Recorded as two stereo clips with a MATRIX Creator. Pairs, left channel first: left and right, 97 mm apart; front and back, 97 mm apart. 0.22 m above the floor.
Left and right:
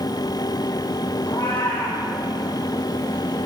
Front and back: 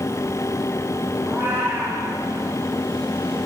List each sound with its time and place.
1.2 s a cat meowing: 110° left, 5 m